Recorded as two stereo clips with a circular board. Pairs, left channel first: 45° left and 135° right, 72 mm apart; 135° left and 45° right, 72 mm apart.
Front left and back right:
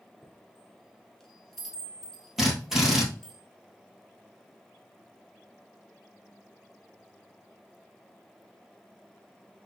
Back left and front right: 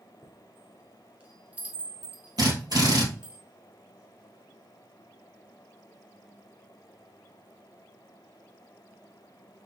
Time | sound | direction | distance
0.2 | a chime | 30° right | 1.1 m
2.4 | a drill | 50° right | 1.9 m